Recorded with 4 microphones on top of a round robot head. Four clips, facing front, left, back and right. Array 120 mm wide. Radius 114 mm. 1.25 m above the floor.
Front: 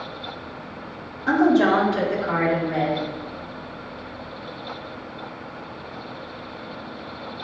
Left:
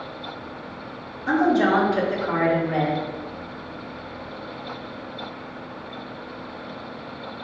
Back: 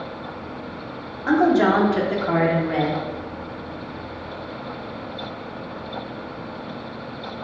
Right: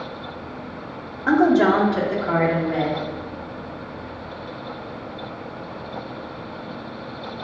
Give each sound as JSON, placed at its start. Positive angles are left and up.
{"t": 1.3, "sound": "a woman speaking", "azimuth_deg": -115, "distance_m": 1.1}